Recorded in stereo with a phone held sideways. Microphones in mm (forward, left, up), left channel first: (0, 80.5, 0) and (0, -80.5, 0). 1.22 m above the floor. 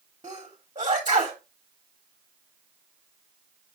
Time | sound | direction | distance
0.2 | a sneeze | 30° right (ahead or behind) | 2 m